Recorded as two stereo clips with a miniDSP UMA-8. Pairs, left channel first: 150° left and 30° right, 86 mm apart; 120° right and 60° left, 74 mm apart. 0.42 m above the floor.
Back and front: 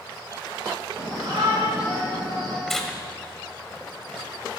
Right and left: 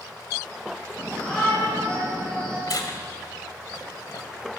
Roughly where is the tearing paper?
Behind right.